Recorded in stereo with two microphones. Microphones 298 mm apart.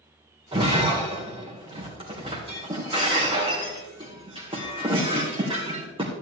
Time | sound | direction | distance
0.5 | breaking glass | 20° right (ahead or behind) | 3 m